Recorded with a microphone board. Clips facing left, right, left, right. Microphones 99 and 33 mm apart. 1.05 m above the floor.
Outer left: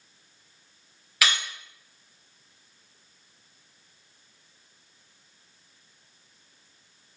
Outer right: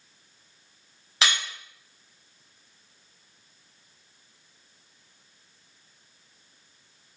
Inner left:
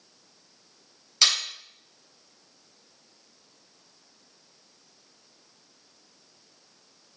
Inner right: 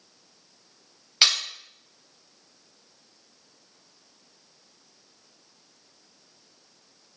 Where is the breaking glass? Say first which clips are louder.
Even, inner right 1 dB; 30° right (ahead or behind), 3 m.